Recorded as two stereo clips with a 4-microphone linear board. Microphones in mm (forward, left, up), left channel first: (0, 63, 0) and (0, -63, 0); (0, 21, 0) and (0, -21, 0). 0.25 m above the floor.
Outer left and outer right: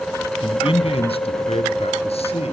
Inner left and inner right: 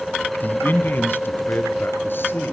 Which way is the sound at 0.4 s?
40° left (ahead or behind).